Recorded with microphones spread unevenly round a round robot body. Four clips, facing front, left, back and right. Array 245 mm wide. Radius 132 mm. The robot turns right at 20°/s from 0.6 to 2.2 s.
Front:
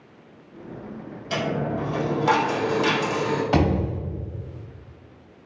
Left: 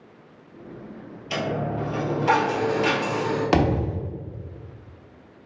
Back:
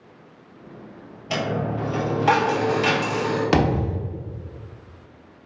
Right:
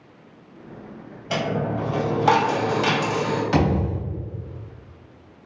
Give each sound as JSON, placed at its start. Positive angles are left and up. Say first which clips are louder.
{"t": 1.3, "sound": "a dropped coin", "louder": "right 2 dB, back 1 dB", "azimuth_deg": -140, "distance_m": 1.7}
{"t": 3.5, "sound": "a thud", "louder": "left 1 dB, back 1 dB", "azimuth_deg": 150, "distance_m": 1.1}